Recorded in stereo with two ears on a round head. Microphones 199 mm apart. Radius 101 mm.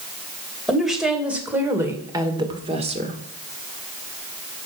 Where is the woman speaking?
Centre (ahead or behind), 2.5 m; by 3.2 s 30° right (ahead or behind), 1.7 m.